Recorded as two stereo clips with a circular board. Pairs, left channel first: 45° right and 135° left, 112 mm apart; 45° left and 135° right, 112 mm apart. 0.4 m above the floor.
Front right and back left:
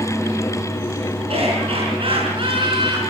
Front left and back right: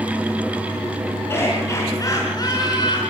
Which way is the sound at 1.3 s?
110° left.